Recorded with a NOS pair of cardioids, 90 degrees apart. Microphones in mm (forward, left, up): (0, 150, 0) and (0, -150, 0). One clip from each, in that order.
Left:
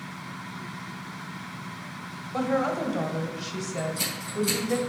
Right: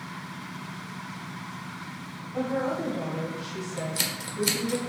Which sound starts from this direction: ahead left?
A woman speaking, at 2.3 s.